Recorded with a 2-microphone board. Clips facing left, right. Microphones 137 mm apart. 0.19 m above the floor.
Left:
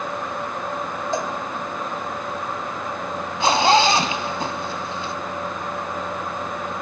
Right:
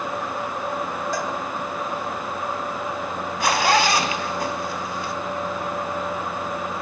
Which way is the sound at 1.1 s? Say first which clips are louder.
Left 4 dB; 25° left (ahead or behind).